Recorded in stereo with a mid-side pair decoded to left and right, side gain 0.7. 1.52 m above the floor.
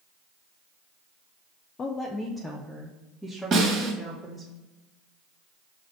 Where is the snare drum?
40° right, 2.5 m.